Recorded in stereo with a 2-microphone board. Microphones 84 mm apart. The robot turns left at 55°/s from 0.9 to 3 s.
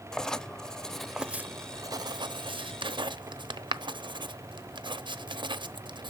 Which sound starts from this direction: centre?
Writing, at 0.1 s.